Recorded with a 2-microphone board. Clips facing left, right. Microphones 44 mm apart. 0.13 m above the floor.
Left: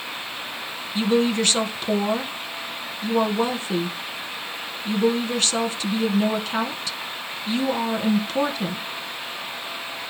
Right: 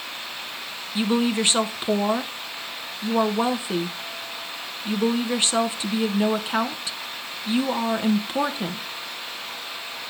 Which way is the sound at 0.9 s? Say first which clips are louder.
Left 2 dB; 20° right (ahead or behind).